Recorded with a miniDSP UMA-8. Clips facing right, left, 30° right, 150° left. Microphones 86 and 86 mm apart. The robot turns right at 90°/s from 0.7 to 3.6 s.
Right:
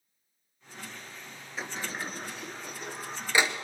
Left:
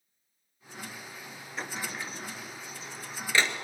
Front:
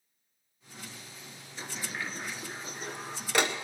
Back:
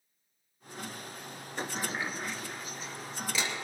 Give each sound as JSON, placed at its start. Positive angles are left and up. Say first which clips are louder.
{"t": 1.6, "sound": "a sliding door", "louder": "right 1 dB, back 4 dB", "azimuth_deg": 180, "distance_m": 0.9}